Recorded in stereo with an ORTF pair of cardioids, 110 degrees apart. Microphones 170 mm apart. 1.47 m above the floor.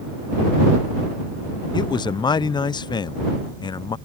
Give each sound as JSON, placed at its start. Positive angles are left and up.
{"t": 1.7, "sound": "a man speaking", "azimuth_deg": 30}